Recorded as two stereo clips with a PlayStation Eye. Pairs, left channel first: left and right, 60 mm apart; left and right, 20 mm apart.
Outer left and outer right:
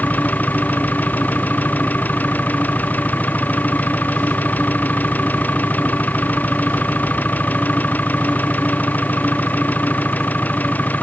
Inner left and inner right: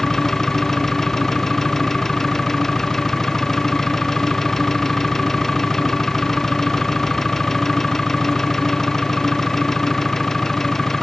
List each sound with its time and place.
0.0 s an engine running: 30° left (ahead or behind)